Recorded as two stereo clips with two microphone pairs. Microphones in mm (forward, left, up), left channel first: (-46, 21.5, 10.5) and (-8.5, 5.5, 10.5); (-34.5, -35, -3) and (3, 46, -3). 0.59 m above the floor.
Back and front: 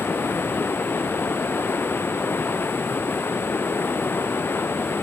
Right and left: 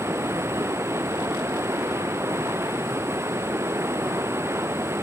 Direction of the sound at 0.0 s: 125° left.